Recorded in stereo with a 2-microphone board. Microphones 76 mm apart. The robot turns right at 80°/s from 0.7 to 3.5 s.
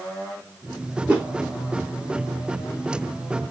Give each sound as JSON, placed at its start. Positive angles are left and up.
{"t": 1.1, "sound": "a whoosh", "side_deg": -15, "distance_m": 1.3}